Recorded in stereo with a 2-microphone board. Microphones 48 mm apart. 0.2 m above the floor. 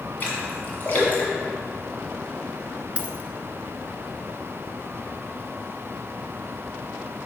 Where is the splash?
40° left (ahead or behind), 1.9 m.